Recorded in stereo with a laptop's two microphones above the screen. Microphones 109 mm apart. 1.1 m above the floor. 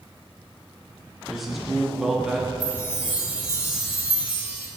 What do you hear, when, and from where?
1.3 s a man speaking: centre (ahead or behind), 0.8 m
2.6 s a chime: 15° right (ahead or behind), 2.5 m